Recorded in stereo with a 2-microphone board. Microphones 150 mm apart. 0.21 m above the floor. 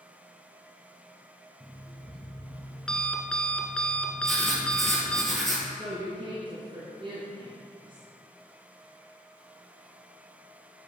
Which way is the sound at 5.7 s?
35° right (ahead or behind).